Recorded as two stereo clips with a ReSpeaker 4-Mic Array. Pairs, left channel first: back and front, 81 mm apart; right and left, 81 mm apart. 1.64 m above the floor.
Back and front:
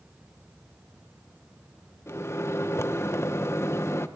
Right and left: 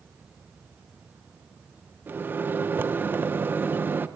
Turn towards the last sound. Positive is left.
turn(degrees=140)